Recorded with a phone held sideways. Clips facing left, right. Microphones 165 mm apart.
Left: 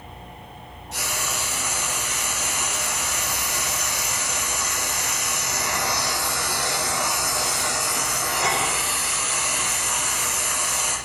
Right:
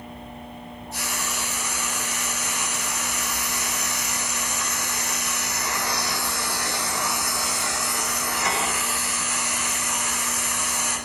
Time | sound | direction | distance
0.9 | frying | 80° left | 5.5 m